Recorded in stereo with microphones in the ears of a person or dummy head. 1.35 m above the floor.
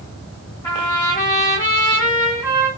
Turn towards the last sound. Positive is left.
turn(degrees=10)  # may be behind; listen again after turning